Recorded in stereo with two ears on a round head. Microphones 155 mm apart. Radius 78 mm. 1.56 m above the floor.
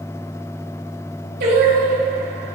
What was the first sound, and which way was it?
Singing, 60° right (ahead or behind).